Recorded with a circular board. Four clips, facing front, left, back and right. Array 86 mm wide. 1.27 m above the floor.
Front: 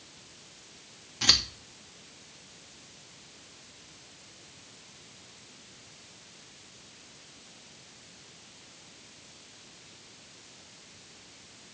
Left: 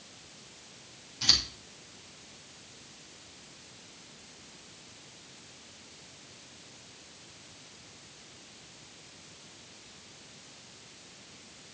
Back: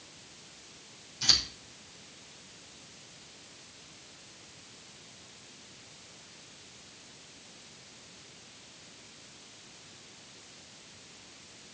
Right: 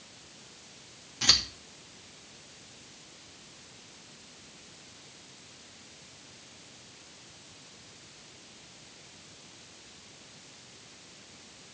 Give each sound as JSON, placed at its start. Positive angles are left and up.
{"t": 1.2, "sound": "scissors", "azimuth_deg": -25, "distance_m": 2.5}